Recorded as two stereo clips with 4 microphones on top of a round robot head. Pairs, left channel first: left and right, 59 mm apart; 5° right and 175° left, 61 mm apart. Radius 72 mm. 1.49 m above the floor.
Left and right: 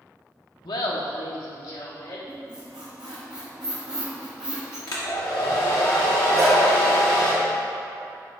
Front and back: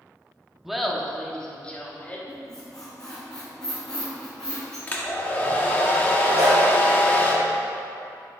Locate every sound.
0.7 s laughter: 90° left, 0.8 m; by 2.2 s 60° left, 1.5 m
2.3 s a squeak: 55° right, 1.1 m
4.9 s a hair dryer: 55° left, 0.8 m
6.3 s a dog barking: straight behind, 1.1 m